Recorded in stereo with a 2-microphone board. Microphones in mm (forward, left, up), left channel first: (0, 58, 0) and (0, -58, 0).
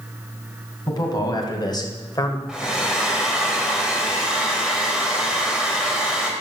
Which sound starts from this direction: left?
A man speaking, at 0.9 s.